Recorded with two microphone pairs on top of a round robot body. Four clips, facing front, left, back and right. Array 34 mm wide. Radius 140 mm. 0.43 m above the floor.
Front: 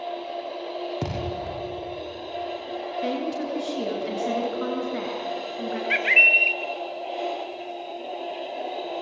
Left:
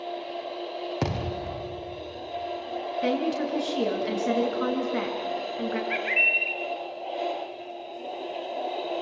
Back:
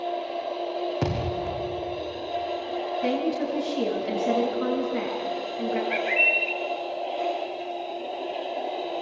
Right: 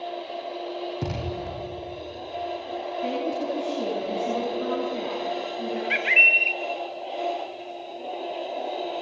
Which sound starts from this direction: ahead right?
A bird, at 5.9 s.